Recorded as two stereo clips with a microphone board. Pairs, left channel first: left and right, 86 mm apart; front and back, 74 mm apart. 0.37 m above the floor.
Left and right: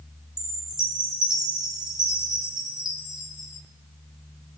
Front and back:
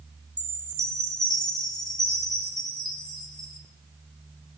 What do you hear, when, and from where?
0.4 s a chime: 10° right, 3 m